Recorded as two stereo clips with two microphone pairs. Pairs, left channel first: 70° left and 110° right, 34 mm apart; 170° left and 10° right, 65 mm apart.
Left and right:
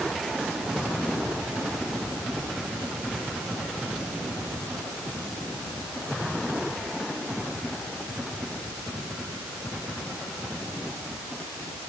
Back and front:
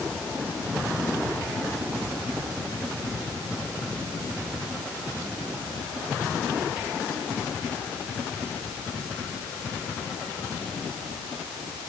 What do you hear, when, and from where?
Only background noise.